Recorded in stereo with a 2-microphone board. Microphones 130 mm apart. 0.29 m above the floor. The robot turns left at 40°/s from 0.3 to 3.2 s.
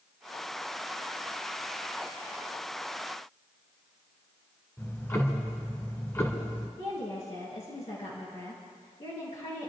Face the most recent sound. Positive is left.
turn(degrees=65)  # may be behind; listen again after turning